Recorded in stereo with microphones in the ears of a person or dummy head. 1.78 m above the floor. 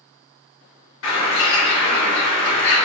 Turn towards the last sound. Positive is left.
turn(degrees=70)  # may be behind; listen again after turning